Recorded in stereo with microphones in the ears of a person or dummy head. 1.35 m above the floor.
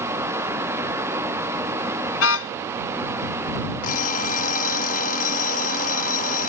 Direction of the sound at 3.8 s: 45° left (ahead or behind).